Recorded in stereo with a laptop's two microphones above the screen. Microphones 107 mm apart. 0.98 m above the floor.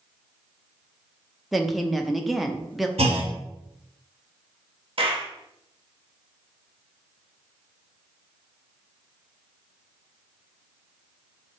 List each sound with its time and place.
1.5 s a woman speaking: centre (ahead or behind), 0.5 m
3.0 s a clunk: 70° right (ahead or behind), 0.9 m
5.0 s a clap: 60° right (ahead or behind), 0.9 m